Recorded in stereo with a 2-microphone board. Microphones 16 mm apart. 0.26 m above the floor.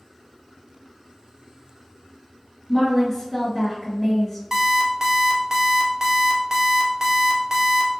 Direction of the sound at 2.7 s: 10° left (ahead or behind).